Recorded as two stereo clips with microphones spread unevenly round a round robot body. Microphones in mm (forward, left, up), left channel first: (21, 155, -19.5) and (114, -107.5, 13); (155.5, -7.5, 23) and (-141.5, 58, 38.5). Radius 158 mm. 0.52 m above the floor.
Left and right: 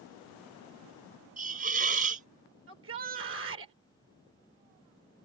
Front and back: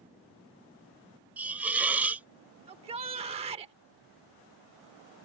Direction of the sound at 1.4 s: 105° right.